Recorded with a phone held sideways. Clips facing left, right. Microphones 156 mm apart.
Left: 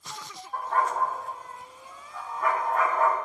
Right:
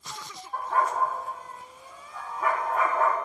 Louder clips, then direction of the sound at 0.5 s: Even; 5° right (ahead or behind).